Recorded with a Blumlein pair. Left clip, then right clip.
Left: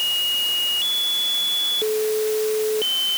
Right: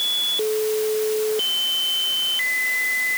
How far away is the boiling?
No boiling in this recording.